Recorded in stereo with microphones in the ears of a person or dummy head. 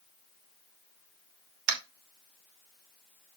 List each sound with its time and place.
1.7 s tapping: 55° right (ahead or behind), 1.3 m